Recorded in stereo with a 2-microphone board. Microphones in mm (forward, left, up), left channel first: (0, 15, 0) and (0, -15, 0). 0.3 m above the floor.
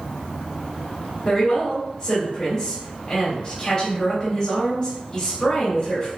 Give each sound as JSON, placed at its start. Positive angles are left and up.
{"t": 1.2, "sound": "a woman speaking", "side_deg": 25, "distance_m": 1.5}